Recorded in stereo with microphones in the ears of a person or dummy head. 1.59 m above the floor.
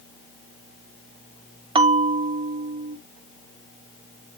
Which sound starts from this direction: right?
A bell, at 1.8 s.